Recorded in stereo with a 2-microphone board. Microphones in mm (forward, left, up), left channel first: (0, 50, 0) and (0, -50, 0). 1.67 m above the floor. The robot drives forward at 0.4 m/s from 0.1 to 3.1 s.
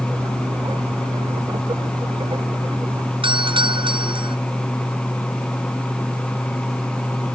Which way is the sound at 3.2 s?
55° right (ahead or behind).